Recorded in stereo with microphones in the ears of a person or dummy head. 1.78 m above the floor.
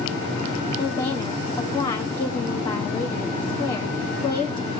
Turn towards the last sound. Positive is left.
turn(degrees=25)  # may be behind; listen again after turning